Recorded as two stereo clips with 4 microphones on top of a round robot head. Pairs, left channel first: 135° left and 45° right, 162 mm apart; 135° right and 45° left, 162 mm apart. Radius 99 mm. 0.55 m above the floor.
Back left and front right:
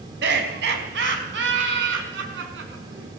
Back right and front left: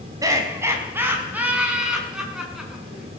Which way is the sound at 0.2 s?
25° right.